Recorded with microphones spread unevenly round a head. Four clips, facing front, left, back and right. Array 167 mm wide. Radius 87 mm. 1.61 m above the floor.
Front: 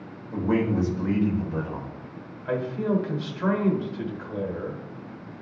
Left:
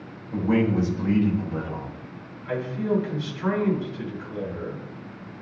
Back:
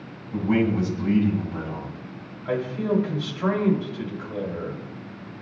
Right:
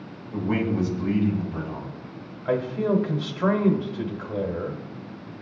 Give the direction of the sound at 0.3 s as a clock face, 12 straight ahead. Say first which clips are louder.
Left 3 dB, back 2 dB; 10 o'clock.